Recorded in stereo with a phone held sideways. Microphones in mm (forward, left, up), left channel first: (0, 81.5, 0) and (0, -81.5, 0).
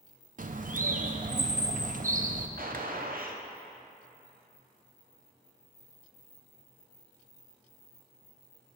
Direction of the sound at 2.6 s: 60° right (ahead or behind).